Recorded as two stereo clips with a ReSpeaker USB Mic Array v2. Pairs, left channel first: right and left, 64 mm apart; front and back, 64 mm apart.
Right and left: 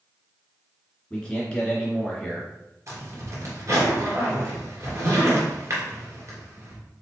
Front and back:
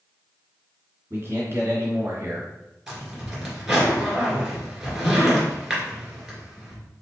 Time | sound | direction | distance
1.1 | a man speaking | 160° right | 2 m
2.9 | a zipper | 95° left | 2.0 m